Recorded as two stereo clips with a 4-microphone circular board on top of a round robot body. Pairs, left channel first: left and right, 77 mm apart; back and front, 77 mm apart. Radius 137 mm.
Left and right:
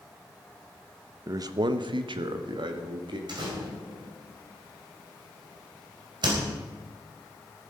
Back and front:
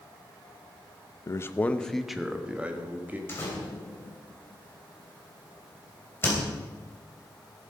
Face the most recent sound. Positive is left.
turn(degrees=-120)